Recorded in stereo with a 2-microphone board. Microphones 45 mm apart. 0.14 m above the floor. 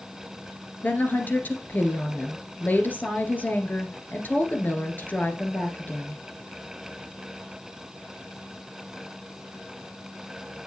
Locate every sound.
0.8 s a woman speaking: 45° left (ahead or behind), 1.8 m